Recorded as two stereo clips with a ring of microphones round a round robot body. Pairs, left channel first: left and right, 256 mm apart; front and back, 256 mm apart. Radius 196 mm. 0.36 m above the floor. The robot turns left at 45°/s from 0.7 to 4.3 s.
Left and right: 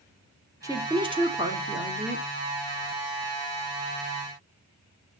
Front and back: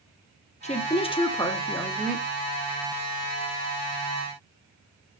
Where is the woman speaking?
25° right, 1.5 m; by 2.2 s 95° right, 1.5 m.